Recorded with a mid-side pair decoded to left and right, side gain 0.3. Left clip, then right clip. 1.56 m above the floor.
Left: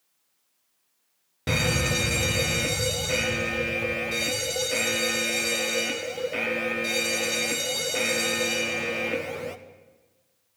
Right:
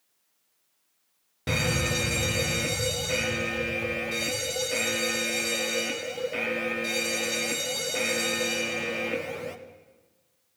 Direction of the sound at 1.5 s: 25° left.